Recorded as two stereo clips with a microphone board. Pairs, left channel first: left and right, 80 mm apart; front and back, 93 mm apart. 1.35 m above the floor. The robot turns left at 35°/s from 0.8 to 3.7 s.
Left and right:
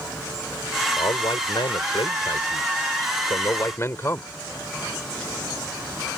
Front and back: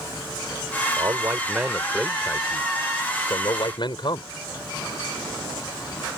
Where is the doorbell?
I don't hear a doorbell.